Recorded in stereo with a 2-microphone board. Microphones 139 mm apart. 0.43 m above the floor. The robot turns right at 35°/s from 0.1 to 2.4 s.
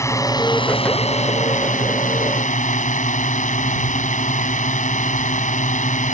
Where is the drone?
25° left; by 6.1 s 105° left.